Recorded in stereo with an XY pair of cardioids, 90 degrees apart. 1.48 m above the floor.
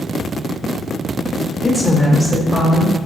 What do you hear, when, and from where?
1.6 s a woman speaking: 20° left, 0.7 m; by 3.0 s 55° right, 1.1 m